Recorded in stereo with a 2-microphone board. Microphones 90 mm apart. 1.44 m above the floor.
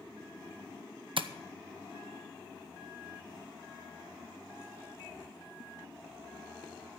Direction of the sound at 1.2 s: 70° right (ahead or behind).